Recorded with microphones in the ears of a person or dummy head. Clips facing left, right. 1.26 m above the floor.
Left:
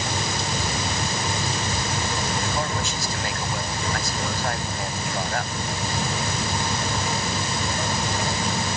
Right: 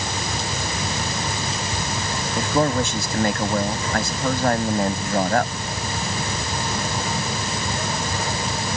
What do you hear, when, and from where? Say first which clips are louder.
2.4 s a man speaking: right 7 dB; 65° right (ahead or behind)